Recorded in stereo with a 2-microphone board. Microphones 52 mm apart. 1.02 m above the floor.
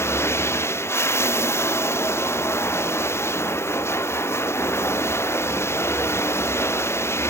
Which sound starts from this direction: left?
Running water, at 0.0 s.